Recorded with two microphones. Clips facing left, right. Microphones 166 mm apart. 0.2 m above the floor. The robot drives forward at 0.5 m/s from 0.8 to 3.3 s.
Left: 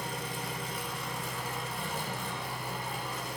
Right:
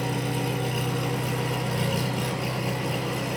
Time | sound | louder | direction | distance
0.0 | an engine running | right 10 dB | 70° right (ahead or behind) | 3 m